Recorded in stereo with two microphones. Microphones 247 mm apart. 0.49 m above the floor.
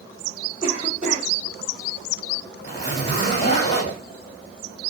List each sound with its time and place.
0.6 s a cough: 30° left (ahead or behind), 1.8 m
2.6 s a zipper: 25° left (ahead or behind), 1.6 m